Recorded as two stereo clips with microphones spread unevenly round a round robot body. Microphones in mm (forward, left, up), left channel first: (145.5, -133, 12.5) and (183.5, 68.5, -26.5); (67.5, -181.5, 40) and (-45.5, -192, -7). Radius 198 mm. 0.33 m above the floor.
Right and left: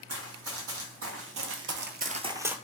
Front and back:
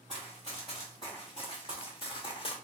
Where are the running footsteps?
100° left, 1.2 m; by 2.6 s 10° right, 0.6 m.